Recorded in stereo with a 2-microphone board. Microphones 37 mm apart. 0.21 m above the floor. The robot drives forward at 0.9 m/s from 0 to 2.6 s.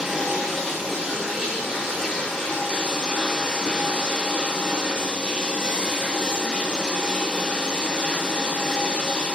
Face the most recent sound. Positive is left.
turn(degrees=-10)  # may be behind; listen again after turning